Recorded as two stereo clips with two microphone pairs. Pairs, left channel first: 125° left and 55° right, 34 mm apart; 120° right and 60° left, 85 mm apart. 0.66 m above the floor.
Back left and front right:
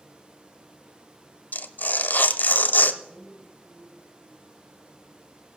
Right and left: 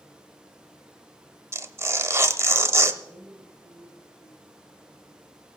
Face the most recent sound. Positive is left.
turn(degrees=0)